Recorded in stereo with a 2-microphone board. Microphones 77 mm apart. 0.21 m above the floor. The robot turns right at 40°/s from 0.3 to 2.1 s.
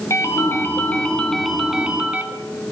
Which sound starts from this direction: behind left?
A ringtone, at 0.1 s.